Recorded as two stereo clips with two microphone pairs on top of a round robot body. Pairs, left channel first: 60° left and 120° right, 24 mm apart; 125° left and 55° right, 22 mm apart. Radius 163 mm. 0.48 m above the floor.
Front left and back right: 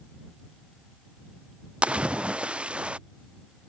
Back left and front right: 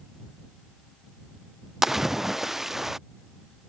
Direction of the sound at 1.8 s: 130° right.